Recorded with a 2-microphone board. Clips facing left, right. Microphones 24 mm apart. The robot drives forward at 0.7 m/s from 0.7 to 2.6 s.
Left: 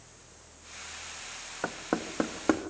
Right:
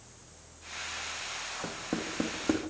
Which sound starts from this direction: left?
Knocking, at 1.6 s.